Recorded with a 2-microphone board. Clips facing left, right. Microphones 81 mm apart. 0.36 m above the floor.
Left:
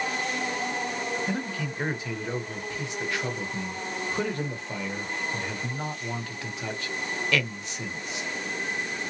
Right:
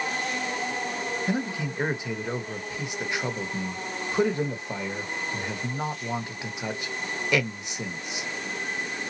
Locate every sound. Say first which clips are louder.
1.3 s a man speaking: right 2 dB; 15° right (ahead or behind), 0.9 m